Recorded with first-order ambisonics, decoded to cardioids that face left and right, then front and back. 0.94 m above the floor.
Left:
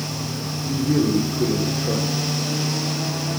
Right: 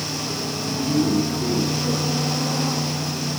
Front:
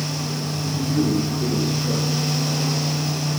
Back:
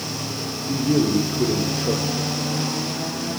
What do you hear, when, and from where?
0.7 s a man speaking: 150° left, 2.5 m